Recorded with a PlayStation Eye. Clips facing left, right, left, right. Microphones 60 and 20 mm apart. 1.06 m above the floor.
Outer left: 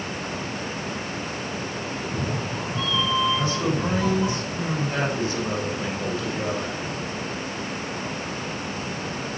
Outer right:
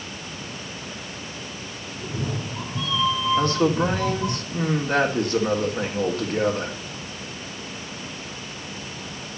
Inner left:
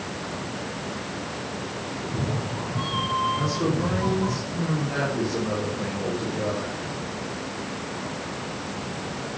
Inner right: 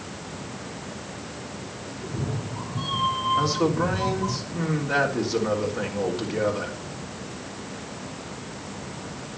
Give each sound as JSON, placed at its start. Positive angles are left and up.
{"t": 2.0, "sound": "a cat meowing", "side_deg": -5, "distance_m": 5.5}
{"t": 3.4, "sound": "a man speaking", "side_deg": -55, "distance_m": 3.5}